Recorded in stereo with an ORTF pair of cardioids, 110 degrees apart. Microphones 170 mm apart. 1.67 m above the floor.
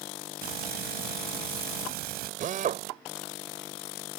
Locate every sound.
0.4 s frying: 65° right
2.4 s a drill: 50° right